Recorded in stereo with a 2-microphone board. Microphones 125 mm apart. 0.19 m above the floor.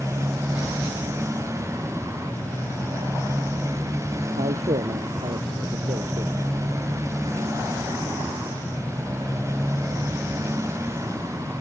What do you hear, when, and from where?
0.0 s a motorcycle: 25° right (ahead or behind)
4.4 s a man speaking: 65° right (ahead or behind)